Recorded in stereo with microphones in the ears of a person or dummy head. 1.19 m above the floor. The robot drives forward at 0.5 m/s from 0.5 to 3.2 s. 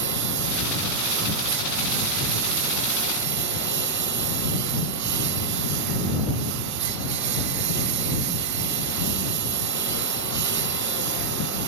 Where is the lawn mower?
60° right (ahead or behind).